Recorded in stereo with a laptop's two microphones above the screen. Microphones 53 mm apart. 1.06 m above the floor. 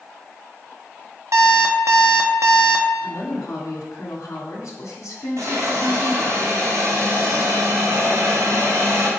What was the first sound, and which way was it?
An alarm clock, 70° right (ahead or behind).